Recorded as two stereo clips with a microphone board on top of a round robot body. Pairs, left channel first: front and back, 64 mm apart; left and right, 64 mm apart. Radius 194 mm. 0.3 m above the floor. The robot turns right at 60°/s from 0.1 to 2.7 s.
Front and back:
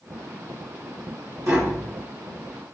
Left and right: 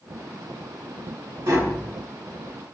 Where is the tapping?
140° right, 2 m; by 1.9 s 110° right, 2 m.